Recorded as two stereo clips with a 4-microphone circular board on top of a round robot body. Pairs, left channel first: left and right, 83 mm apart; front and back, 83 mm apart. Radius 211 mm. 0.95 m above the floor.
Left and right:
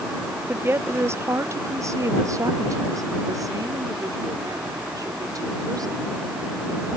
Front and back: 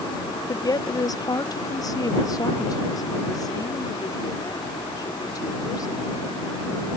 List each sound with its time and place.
0.5 s a woman speaking: 25° right; by 6.2 s 45° right